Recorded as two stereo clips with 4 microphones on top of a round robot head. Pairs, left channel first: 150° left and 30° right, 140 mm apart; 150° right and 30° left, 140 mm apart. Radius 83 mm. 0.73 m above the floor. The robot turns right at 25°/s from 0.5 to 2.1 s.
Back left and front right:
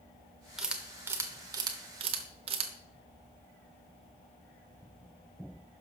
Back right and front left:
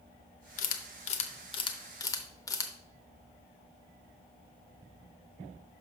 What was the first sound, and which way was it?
A camera shutter, 120° right.